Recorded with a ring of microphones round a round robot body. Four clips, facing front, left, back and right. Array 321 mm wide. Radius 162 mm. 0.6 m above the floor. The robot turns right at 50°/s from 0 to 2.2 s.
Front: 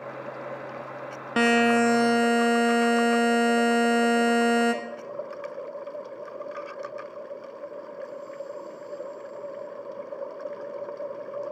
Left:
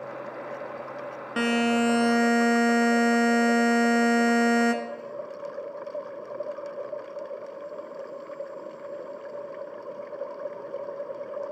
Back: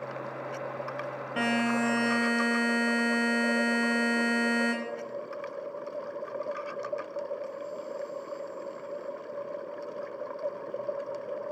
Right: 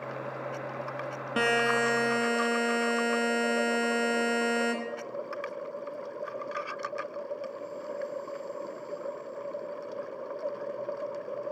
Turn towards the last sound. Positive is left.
turn(degrees=35)